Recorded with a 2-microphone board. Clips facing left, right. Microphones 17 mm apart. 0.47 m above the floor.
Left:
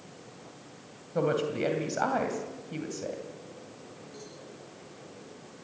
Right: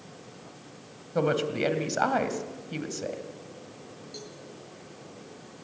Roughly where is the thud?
No thud in this recording.